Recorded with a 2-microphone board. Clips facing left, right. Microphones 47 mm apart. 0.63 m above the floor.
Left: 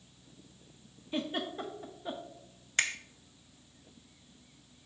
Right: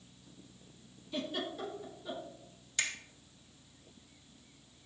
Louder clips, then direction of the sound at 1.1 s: Left 3 dB; 35° left (ahead or behind).